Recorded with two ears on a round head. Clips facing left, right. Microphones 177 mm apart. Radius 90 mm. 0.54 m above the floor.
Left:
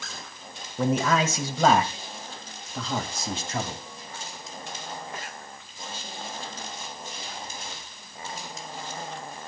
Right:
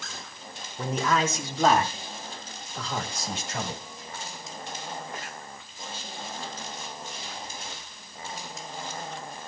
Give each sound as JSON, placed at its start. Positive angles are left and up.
{"t": 0.8, "sound": "a man speaking", "side_deg": 50, "distance_m": 3.0}